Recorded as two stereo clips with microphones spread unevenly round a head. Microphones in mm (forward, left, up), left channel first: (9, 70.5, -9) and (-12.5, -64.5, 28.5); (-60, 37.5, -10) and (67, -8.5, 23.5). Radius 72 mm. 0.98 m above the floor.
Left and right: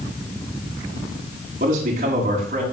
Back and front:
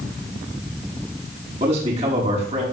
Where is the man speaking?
70° right, 9.5 m.